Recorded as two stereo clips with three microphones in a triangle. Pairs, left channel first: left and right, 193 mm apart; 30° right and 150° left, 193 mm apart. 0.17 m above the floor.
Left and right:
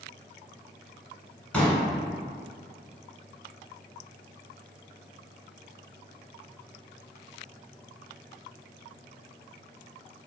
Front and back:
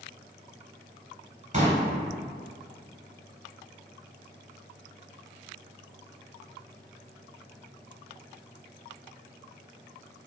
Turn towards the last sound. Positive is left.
turn(degrees=170)